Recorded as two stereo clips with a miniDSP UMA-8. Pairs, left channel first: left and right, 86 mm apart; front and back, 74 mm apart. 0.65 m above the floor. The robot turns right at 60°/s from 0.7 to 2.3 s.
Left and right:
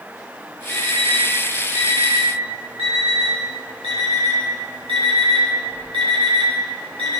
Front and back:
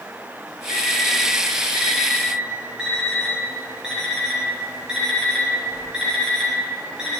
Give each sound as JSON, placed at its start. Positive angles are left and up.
{"t": 0.7, "sound": "an alarm clock", "azimuth_deg": 165, "distance_m": 2.5}